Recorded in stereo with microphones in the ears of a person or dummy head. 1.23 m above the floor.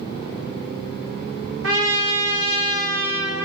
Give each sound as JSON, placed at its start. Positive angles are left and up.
{"t": 1.6, "sound": "a trumpet", "side_deg": -75, "distance_m": 1.8}